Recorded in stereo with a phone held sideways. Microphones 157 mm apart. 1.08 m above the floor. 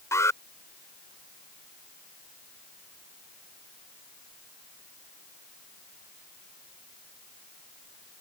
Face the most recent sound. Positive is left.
turn(degrees=20)  # may be behind; listen again after turning